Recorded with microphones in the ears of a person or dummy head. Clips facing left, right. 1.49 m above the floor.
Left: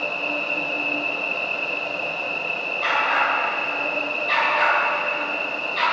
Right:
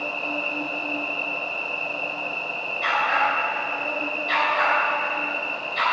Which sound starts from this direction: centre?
A dog barking, at 2.8 s.